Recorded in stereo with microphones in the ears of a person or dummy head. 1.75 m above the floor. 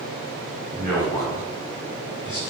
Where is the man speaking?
5° left (ahead or behind), 2 m; by 2.4 s 15° right (ahead or behind), 1.4 m.